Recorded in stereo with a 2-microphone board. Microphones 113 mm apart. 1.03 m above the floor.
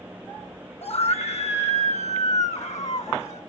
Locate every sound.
0.8 s a scream: 65° left (ahead or behind), 1.1 m; by 3.4 s 80° left, 2.5 m